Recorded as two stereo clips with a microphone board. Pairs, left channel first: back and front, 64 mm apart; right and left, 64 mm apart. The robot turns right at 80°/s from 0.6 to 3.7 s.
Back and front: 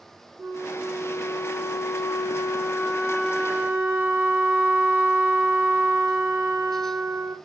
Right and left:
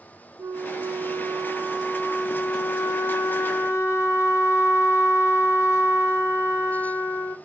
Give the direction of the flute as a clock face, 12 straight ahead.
10 o'clock.